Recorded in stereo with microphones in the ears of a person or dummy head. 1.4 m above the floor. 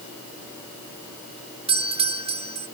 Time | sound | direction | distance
1.7 | a doorbell | 30° right (ahead or behind) | ?